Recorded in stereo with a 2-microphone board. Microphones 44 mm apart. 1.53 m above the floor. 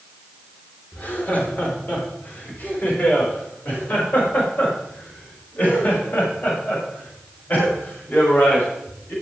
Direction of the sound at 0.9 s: 45° left (ahead or behind).